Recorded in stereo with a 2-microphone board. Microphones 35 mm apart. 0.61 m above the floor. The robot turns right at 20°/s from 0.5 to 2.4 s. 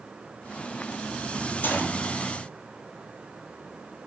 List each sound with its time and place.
1.6 s a gunshot: 55° left (ahead or behind), 2.5 m; by 2.1 s 65° left (ahead or behind), 2.5 m